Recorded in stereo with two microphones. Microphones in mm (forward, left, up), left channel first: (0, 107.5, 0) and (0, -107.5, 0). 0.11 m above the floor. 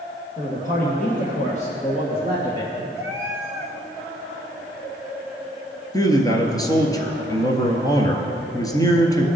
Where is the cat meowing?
10° right (ahead or behind), 2 m.